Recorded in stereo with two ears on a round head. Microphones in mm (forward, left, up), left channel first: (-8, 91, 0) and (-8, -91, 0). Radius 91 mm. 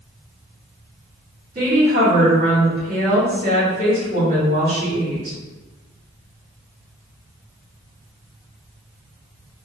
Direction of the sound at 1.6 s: 25° right (ahead or behind).